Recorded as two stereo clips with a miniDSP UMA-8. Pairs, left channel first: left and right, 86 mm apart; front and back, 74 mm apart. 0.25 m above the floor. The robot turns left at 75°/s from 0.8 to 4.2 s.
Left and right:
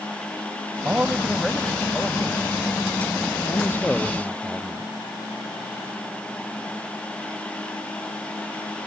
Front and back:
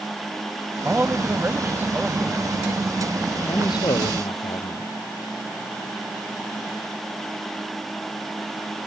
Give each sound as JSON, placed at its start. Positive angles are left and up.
{"t": 0.8, "sound": "a man speaking", "azimuth_deg": -135}
{"t": 3.5, "sound": "a man speaking", "azimuth_deg": 45}